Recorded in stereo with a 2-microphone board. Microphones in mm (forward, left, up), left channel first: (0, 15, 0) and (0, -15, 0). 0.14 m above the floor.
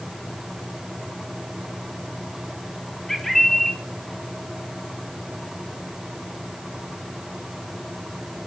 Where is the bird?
10° left (ahead or behind), 2 m.